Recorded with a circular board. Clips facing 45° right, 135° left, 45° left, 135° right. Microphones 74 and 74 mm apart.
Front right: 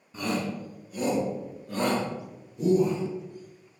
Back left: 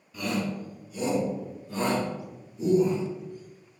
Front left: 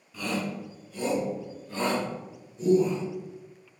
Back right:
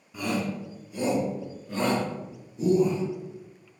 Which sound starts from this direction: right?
A shout, at 0.1 s.